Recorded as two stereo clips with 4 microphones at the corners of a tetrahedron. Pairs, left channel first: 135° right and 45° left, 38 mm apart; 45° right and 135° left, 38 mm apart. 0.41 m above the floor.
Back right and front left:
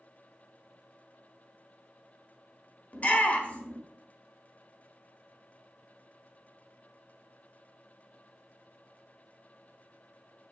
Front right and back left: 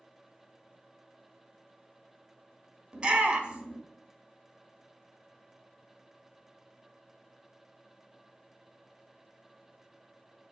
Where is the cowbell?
I don't hear a cowbell.